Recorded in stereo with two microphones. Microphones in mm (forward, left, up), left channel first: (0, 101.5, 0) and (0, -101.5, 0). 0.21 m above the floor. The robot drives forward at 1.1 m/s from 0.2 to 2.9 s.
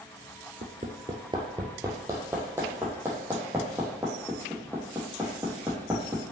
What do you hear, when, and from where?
0.6 s hammering: 50° right (ahead or behind), 0.7 m; by 6.2 s 10° right (ahead or behind), 3 m